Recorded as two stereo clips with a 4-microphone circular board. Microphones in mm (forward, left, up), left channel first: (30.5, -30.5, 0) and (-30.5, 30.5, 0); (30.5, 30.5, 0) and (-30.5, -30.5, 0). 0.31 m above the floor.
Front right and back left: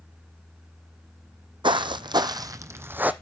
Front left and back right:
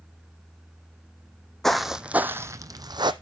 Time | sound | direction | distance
1.6 | footsteps | 130° left | 0.7 m